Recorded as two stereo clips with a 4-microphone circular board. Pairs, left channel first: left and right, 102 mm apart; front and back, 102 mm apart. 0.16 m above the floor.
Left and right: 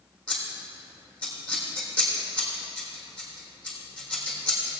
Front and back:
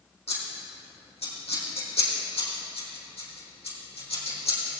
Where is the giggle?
No giggle in this recording.